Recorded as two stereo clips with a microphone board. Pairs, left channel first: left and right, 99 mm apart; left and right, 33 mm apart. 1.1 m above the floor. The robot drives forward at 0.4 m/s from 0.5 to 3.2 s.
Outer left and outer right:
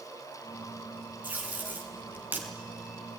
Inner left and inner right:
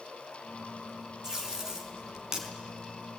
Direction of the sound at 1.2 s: 15° right (ahead or behind).